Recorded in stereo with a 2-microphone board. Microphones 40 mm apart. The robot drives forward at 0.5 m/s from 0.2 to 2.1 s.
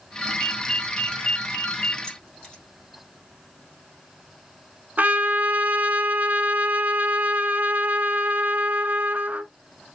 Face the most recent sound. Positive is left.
turn(degrees=-45)  # may be behind; listen again after turning